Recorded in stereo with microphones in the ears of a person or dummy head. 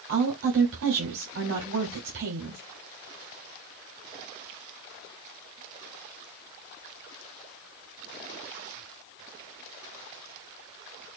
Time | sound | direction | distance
0.1 | a woman speaking | 75° right (ahead or behind) | 2.5 m